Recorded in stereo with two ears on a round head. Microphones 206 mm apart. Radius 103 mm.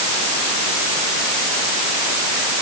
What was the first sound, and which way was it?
Only background noise.